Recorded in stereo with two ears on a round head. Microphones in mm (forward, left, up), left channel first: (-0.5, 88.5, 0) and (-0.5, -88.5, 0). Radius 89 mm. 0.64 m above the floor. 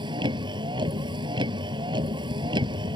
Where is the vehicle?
25° right (ahead or behind).